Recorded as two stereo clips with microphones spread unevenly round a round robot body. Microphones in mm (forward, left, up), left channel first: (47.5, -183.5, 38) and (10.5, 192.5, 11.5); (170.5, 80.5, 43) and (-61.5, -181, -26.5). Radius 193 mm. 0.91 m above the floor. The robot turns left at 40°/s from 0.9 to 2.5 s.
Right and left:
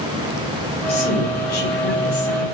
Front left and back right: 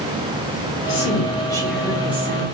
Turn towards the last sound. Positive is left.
turn(degrees=-70)